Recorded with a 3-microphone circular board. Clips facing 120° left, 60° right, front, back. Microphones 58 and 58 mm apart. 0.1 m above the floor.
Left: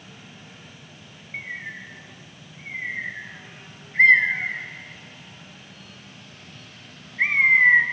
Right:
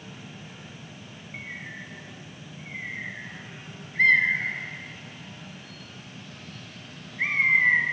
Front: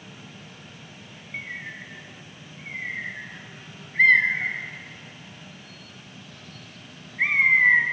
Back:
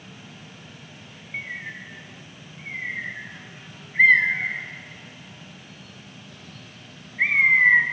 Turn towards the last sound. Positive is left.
turn(degrees=110)